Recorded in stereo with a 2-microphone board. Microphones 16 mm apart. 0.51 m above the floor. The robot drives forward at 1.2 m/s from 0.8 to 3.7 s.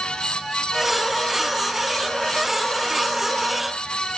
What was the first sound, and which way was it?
Only background noise.